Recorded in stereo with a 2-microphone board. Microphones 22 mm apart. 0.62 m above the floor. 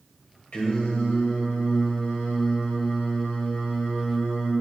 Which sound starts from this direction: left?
Singing, at 0.5 s.